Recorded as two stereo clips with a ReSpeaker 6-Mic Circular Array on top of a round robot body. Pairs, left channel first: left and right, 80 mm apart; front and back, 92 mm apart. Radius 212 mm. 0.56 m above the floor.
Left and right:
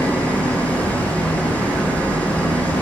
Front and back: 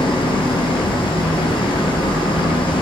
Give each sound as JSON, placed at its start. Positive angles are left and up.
{"t": 0.0, "sound": "an engine running", "azimuth_deg": 20, "distance_m": 7.5}